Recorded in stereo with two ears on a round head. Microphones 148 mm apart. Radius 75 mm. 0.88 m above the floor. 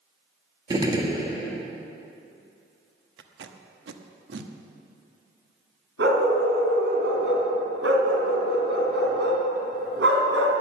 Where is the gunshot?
25° right (ahead or behind), 1.8 m.